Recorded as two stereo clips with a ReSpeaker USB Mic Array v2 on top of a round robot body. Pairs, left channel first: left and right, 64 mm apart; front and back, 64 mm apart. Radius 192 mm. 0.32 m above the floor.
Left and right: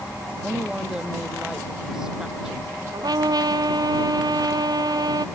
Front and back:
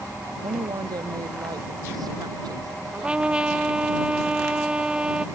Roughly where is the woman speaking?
Behind.